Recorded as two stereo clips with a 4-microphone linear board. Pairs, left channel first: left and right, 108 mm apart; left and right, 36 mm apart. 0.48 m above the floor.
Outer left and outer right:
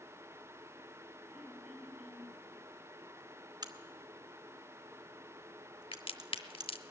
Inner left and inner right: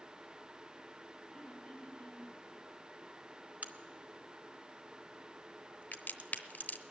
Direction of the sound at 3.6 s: 40° right (ahead or behind).